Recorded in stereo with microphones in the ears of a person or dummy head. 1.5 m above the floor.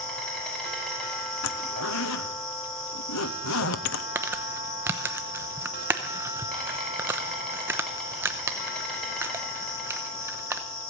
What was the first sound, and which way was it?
An insect, 5° left (ahead or behind).